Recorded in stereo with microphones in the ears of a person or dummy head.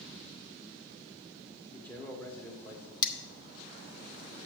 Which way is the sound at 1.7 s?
10° left (ahead or behind).